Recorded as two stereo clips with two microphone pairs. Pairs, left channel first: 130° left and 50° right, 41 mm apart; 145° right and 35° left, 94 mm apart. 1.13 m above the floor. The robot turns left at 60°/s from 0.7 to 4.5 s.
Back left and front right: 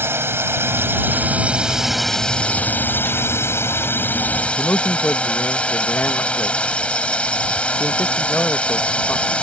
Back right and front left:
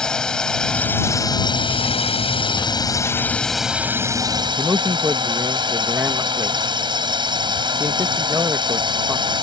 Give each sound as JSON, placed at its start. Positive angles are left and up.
{"t": 0.0, "sound": "a drone", "azimuth_deg": -60}
{"t": 4.6, "sound": "a man speaking", "azimuth_deg": 95}